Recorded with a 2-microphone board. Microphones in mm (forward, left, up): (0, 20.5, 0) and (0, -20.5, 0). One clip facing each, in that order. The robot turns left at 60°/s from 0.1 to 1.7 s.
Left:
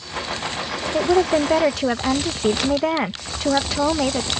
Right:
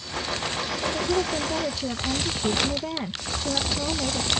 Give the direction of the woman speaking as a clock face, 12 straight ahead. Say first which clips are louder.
Left 10 dB; 8 o'clock.